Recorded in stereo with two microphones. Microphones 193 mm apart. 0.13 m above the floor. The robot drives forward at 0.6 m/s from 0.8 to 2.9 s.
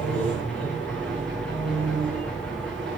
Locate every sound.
0.0 s an engine running: 5° left (ahead or behind), 10 m